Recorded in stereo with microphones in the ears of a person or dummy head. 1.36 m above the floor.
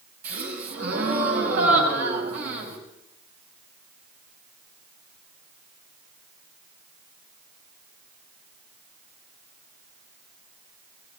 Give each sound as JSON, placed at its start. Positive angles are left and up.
{"t": 0.2, "sound": "a gasp", "side_deg": -55, "distance_m": 7.5}